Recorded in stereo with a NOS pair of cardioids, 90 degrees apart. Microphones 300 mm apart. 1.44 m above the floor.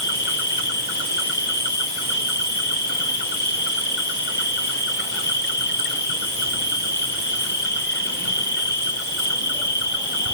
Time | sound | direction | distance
0.0 | an insect | 35° left | 1.1 m